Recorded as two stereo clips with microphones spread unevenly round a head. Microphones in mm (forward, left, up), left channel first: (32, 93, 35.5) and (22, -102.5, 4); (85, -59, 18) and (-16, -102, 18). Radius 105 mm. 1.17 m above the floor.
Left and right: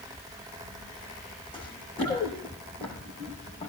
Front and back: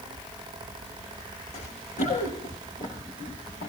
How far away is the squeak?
No squeak in this recording.